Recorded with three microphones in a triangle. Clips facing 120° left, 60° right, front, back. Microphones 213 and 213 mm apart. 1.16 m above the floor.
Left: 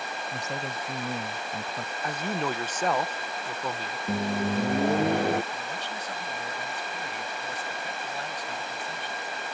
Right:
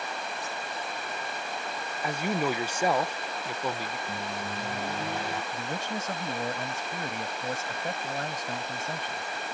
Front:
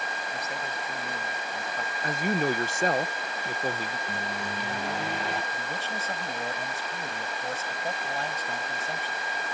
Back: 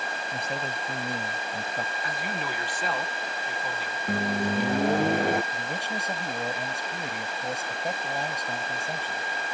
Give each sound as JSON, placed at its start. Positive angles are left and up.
{"t": 0.3, "sound": "a man speaking", "azimuth_deg": 120}
{"t": 2.0, "sound": "a man speaking", "azimuth_deg": 15}
{"t": 4.1, "sound": "a microwave", "azimuth_deg": 145}
{"t": 5.5, "sound": "a man speaking", "azimuth_deg": -105}